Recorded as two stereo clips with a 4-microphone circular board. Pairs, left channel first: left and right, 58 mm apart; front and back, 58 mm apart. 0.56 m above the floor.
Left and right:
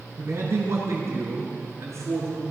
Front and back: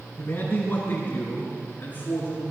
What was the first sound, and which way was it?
A man speaking, 60° right.